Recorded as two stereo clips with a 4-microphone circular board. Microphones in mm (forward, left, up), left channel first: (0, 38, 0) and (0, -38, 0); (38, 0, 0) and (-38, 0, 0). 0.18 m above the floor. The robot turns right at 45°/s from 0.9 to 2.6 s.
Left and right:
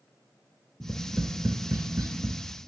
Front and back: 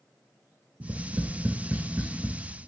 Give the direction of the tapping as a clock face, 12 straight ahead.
5 o'clock.